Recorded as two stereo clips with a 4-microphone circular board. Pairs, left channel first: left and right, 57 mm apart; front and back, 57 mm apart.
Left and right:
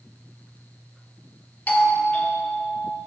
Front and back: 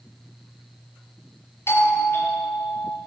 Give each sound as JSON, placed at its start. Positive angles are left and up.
{"t": 1.7, "sound": "a doorbell", "azimuth_deg": 30, "distance_m": 3.0}